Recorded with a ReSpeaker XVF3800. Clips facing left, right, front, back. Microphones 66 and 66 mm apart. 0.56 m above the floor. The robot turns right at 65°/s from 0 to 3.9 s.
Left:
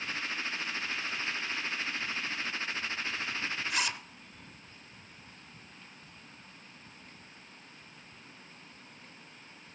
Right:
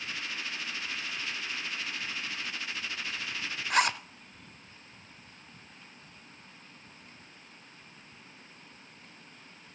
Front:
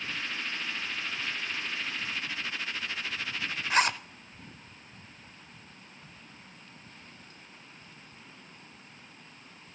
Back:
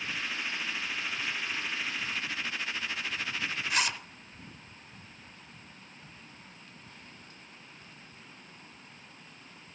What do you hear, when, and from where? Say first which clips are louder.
3.7 s a zipper: right 11 dB, front 7 dB; 60° right, 0.6 m; by 4.0 s 45° right, 0.6 m